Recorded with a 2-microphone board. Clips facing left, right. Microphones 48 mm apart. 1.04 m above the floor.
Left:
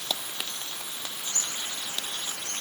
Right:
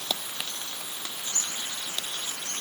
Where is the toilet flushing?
I don't hear a toilet flushing.